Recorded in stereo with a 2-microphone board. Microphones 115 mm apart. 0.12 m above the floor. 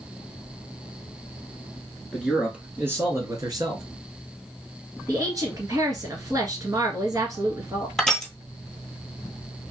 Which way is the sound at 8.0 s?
5° left (ahead or behind).